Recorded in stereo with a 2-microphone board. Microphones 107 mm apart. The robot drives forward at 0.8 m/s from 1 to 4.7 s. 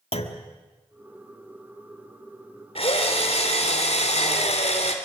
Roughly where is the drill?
Left.